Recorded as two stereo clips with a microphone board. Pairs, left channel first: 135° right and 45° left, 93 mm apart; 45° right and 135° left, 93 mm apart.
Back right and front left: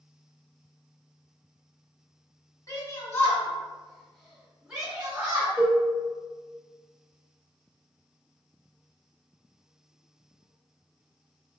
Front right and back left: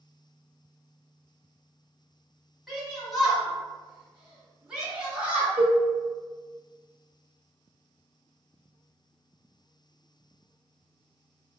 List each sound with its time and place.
2.7 s a shout: 130° right, 1.4 m; by 5.5 s 75° left, 1.3 m
5.6 s a cowbell: 90° left, 0.8 m